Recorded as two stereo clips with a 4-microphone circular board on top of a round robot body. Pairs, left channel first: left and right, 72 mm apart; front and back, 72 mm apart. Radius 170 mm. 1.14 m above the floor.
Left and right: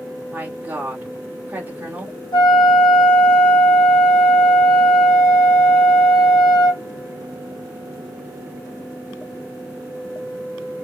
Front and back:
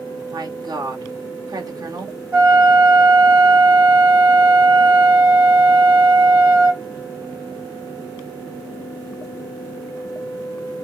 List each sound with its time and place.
0.3 s a woman speaking: 155° right, 1.5 m
2.3 s a flute: 115° left, 0.5 m